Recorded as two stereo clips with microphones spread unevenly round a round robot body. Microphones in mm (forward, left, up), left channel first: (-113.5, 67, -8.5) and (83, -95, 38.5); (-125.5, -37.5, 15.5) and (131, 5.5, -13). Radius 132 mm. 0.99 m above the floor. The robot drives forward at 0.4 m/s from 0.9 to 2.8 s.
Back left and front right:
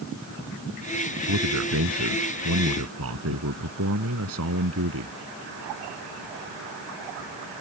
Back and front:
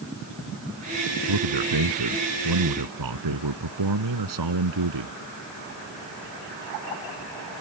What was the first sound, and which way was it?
A man speaking, straight ahead.